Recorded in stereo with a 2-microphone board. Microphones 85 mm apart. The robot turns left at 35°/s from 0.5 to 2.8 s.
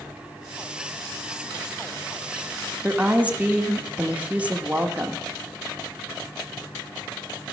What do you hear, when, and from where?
2.8 s a woman speaking: 15° right (ahead or behind), 0.9 m